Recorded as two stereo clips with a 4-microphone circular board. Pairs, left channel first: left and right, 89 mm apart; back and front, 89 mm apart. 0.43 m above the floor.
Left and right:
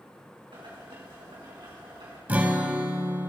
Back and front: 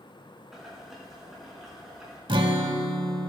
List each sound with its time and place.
0.5 s boiling: 85° right, 4 m
2.3 s a guitar: 20° right, 0.8 m